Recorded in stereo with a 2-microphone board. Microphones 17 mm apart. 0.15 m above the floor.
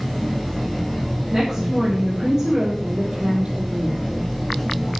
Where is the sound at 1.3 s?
45° right (ahead or behind), 7 m.